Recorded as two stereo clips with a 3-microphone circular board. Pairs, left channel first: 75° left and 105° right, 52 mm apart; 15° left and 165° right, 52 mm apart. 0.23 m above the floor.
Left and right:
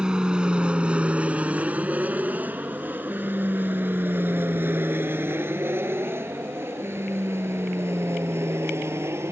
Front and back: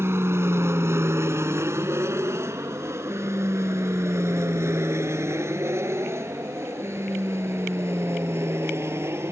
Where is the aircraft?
175° right; by 9.3 s 135° right.